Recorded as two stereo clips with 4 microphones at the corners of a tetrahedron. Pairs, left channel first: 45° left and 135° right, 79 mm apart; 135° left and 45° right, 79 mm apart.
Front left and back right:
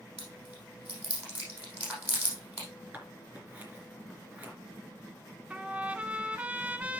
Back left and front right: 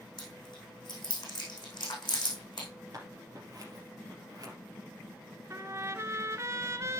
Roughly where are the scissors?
Right.